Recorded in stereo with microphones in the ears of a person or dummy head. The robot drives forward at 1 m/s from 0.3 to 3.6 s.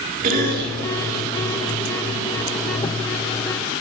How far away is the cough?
About 3 m.